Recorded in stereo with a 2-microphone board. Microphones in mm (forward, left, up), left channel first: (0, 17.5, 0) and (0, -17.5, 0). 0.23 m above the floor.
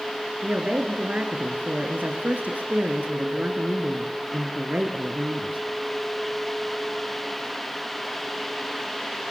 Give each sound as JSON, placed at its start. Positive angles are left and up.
{"t": 0.4, "sound": "a woman speaking", "side_deg": -55, "distance_m": 3.5}